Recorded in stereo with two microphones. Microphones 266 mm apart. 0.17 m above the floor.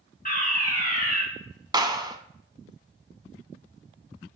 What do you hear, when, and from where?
0.2 s a fire alarm: 35° left (ahead or behind), 3 m
1.7 s a clap: 15° right (ahead or behind), 0.9 m